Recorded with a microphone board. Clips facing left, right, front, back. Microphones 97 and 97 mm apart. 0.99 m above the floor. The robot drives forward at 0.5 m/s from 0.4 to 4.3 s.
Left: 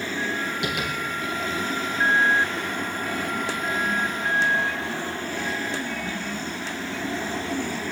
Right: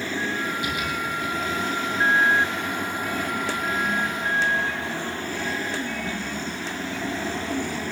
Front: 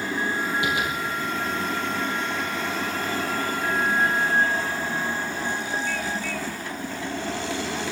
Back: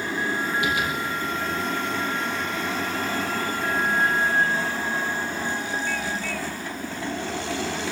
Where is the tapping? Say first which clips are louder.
Even, even; 65° left, 3.5 m; by 0.9 s 70° left, 3.5 m.